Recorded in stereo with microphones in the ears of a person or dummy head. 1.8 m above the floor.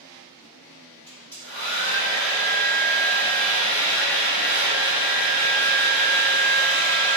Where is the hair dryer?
15° left (ahead or behind), 1.9 m.